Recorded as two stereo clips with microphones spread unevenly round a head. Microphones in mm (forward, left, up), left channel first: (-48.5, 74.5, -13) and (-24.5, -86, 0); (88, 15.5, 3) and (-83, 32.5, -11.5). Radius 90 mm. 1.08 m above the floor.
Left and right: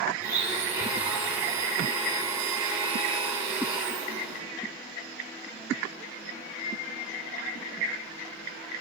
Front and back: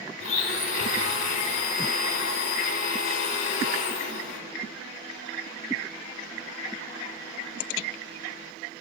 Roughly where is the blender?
Ahead.